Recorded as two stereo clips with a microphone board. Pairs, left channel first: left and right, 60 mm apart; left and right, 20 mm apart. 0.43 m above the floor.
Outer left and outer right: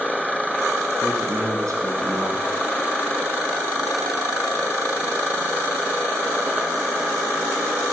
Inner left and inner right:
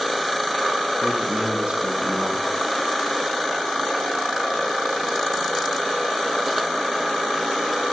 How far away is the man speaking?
About 3.5 m.